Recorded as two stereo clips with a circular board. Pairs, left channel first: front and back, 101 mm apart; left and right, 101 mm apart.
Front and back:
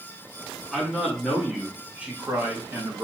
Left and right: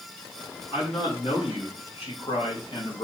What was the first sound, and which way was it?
A man speaking, 90° left.